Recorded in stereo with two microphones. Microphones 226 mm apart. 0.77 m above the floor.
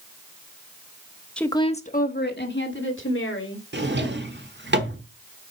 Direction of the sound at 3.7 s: 55° right (ahead or behind).